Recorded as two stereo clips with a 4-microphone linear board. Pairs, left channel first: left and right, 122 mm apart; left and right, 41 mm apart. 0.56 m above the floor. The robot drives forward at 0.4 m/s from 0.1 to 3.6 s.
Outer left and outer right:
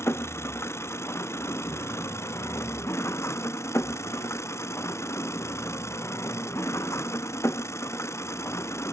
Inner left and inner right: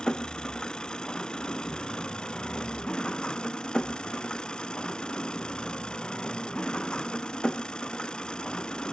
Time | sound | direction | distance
0.0 | an engine running | 20° left (ahead or behind) | ?